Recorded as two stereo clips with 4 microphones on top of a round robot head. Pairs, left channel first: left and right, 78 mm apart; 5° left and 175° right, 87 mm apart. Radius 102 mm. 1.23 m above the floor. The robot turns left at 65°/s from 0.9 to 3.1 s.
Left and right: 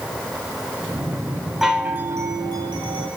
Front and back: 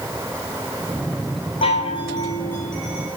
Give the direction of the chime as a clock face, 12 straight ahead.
12 o'clock.